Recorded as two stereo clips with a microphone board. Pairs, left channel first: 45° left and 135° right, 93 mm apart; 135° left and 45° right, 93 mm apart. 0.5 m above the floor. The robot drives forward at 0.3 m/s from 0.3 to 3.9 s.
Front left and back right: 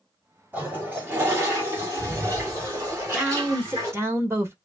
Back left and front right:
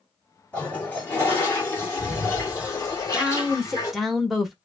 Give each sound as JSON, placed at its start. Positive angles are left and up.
{"t": 0.5, "sound": "a toilet flushing", "azimuth_deg": -175, "distance_m": 1.3}
{"t": 2.9, "sound": "a woman speaking", "azimuth_deg": -85, "distance_m": 0.9}